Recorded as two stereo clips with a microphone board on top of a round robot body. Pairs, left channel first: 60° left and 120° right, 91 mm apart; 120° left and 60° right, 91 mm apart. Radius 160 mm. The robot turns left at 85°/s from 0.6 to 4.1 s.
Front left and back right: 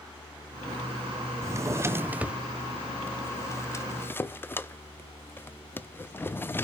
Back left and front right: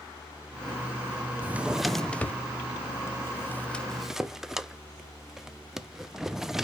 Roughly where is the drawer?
Right.